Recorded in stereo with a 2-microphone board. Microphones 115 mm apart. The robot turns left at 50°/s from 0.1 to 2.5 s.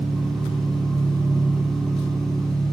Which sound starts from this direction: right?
An engine running, at 0.0 s.